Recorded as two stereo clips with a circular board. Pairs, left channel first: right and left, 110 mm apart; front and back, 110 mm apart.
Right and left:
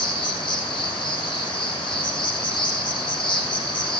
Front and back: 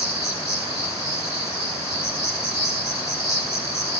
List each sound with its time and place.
0.0 s an insect: 55° right, 4.5 m